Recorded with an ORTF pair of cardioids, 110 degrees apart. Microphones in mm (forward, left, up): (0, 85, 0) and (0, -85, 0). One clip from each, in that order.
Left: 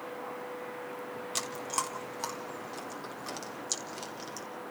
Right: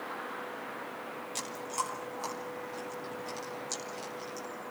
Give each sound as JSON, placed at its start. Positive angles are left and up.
{"t": 1.4, "sound": "chewing", "azimuth_deg": 40, "distance_m": 4.0}